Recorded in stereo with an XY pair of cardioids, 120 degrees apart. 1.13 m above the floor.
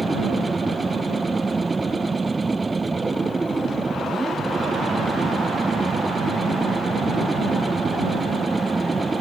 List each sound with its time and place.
0.0 s a machine running: 15° right